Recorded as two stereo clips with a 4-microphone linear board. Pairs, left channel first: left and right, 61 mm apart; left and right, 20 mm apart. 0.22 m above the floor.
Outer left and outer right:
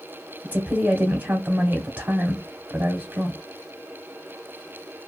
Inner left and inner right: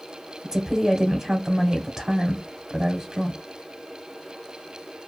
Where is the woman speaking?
25° right (ahead or behind), 1.1 m.